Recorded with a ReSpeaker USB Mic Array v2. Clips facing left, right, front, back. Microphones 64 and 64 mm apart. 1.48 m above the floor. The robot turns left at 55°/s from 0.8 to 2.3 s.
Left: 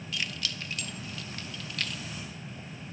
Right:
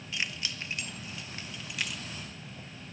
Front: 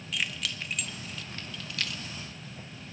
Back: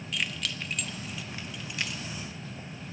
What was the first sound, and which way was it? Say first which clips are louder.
Keys jangling: even, even; 90° right.